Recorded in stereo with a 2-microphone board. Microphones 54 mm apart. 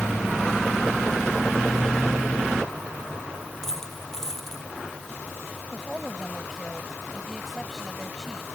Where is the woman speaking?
Centre (ahead or behind).